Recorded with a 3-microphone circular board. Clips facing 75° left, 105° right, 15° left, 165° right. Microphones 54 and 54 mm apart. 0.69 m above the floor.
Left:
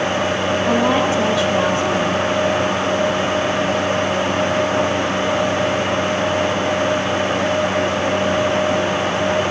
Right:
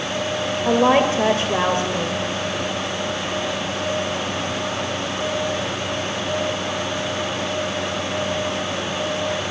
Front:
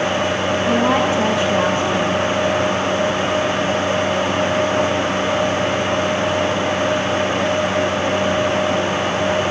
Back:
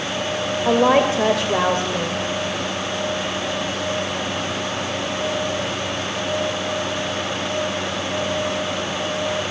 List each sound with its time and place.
0.7 s a woman speaking: 155° right, 3 m